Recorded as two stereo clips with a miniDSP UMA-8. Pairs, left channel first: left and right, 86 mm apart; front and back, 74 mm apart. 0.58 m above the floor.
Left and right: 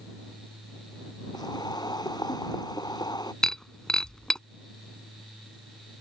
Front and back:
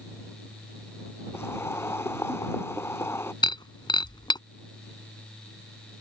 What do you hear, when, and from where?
1.3 s boiling: 55° left
3.4 s breaking glass: 5° left